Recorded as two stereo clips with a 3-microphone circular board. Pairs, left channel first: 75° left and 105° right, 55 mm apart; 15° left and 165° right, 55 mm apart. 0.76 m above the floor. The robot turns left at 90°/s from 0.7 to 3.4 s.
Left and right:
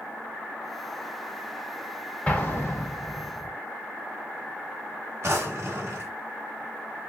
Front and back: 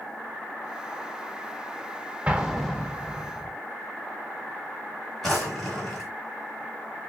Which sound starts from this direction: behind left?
An explosion, at 2.3 s.